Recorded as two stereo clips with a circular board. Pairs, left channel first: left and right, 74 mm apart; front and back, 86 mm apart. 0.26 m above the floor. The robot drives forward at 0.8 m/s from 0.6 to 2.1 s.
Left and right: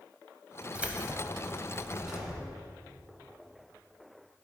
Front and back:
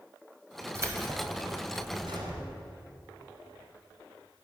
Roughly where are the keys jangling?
Behind right.